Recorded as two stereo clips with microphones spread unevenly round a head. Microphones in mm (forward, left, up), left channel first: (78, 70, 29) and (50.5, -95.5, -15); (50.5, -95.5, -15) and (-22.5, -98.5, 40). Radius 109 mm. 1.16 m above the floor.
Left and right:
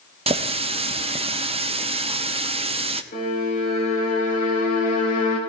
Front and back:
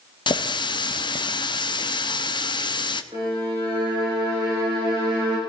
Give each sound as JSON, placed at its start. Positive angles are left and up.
{"t": 0.3, "sound": "a running tap", "azimuth_deg": -40, "distance_m": 1.0}
{"t": 3.1, "sound": "a violin", "azimuth_deg": 130, "distance_m": 4.0}